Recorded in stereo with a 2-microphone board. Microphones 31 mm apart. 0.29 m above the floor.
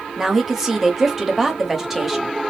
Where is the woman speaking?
10° right (ahead or behind), 0.9 m.